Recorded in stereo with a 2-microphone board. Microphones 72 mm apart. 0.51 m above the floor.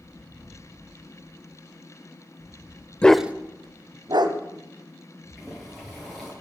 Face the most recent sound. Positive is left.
turn(degrees=0)  # may be behind; listen again after turning